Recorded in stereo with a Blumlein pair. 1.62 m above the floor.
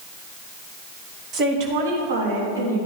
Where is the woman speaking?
30° right, 1.7 m; by 2.8 s 70° right, 3 m.